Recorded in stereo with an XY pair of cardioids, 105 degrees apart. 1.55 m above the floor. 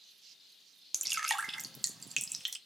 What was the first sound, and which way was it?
Dripping, 10° right.